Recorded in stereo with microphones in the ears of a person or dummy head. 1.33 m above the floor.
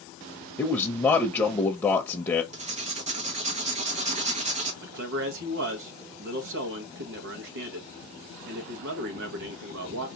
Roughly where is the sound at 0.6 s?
Centre.